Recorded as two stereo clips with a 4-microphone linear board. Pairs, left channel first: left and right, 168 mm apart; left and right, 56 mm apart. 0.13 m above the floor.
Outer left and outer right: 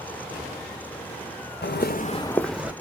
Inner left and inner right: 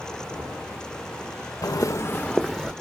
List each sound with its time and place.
1.6 s footsteps: 85° left, 0.6 m; by 2.7 s 5° right (ahead or behind), 0.8 m